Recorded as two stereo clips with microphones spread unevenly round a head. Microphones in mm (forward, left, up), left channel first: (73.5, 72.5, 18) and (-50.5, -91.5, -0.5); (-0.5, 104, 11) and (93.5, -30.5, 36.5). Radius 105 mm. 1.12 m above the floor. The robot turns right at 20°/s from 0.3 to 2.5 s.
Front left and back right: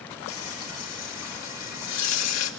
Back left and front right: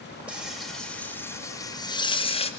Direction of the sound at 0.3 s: 30° left.